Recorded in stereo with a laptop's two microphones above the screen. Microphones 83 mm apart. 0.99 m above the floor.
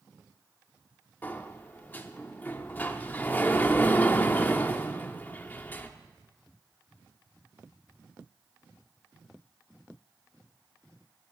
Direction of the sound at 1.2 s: 20° left (ahead or behind).